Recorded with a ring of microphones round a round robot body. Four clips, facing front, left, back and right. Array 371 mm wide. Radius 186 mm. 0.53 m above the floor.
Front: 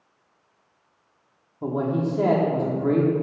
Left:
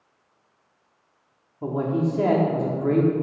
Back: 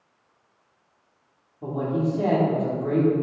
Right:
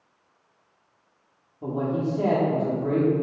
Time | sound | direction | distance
1.6 | a man speaking | 40° left | 1.2 m